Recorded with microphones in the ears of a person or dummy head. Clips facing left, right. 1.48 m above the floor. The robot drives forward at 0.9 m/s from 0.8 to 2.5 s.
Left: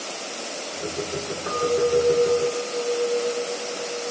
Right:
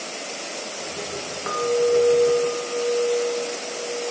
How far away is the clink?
About 1.2 m.